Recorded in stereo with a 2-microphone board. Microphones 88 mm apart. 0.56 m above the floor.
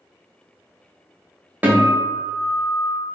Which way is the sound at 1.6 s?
15° right (ahead or behind).